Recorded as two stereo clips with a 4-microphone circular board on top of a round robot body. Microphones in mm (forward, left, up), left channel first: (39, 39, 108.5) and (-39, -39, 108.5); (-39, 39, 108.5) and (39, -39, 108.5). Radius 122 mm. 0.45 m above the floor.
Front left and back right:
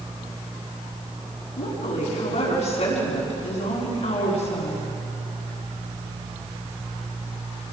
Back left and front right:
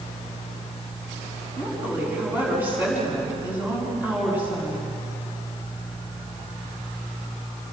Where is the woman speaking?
30° left, 6 m.